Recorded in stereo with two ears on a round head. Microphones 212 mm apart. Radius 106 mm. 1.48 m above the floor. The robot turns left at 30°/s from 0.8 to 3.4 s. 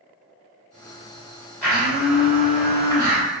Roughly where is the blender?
Ahead.